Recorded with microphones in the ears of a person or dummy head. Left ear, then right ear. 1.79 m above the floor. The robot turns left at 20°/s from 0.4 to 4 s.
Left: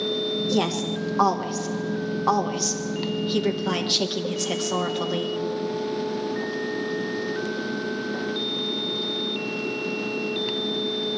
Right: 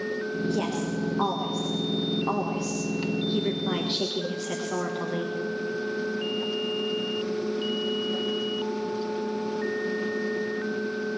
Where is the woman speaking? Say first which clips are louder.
Left 4 dB; 65° left (ahead or behind), 1.6 m; by 5.3 s 15° left (ahead or behind), 1.6 m.